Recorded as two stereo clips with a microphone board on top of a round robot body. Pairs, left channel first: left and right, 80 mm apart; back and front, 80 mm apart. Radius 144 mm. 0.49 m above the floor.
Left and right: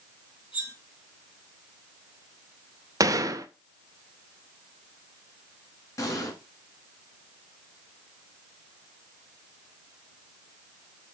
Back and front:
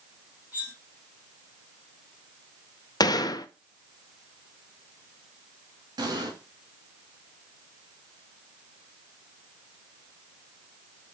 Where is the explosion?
40° left, 2.5 m.